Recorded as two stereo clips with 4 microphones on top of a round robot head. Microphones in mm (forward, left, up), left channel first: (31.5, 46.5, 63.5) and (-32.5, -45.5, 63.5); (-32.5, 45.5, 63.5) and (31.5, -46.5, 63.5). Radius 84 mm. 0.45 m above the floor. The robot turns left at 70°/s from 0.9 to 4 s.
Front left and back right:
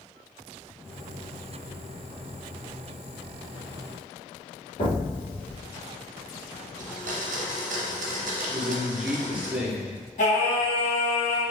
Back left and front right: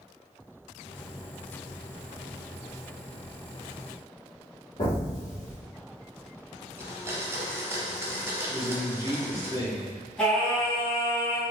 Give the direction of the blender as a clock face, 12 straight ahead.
4 o'clock.